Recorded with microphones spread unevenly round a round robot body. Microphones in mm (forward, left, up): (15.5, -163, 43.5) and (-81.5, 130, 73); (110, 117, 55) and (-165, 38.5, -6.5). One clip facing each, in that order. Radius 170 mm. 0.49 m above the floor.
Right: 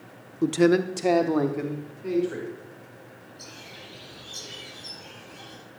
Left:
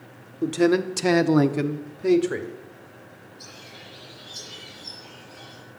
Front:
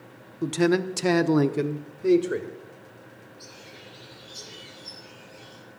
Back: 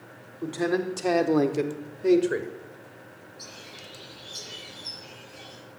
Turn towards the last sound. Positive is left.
turn(degrees=-120)